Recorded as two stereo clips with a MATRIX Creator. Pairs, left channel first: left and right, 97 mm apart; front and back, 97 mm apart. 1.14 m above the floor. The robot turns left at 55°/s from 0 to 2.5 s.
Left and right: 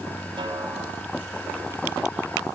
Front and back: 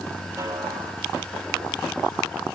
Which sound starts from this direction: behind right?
A snare drum, at 0.4 s.